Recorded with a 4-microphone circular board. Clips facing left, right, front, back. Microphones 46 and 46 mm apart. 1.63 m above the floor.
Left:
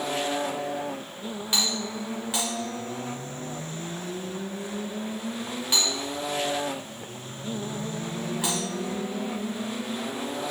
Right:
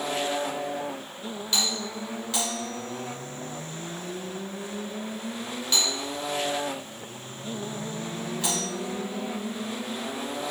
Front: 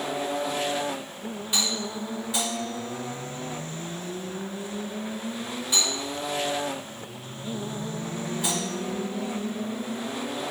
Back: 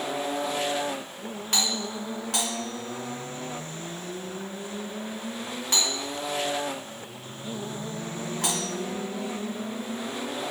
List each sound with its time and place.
1.5 s a doorbell: 160° left, 2.5 m